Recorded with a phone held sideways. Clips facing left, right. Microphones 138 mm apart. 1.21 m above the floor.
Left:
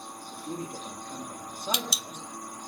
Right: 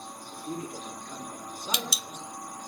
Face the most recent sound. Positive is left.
turn(degrees=60)  # may be behind; listen again after turning